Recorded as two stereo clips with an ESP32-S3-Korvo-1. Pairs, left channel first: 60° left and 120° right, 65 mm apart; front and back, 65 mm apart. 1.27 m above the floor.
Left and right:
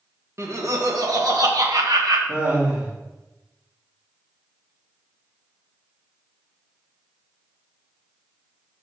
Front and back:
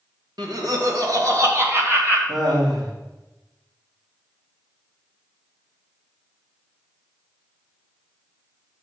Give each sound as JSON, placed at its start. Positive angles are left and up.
{"t": 0.4, "sound": "laughter", "azimuth_deg": -165, "distance_m": 1.5}
{"t": 2.3, "sound": "laughter", "azimuth_deg": 170, "distance_m": 2.5}